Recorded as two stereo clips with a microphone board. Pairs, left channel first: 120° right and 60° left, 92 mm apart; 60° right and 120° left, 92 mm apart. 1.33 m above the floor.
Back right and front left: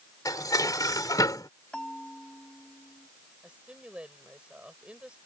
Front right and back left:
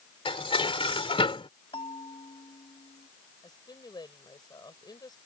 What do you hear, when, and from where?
0.2 s dishes clattering: 75° right
1.7 s a bell: 40° right
3.4 s a woman speaking: 20° right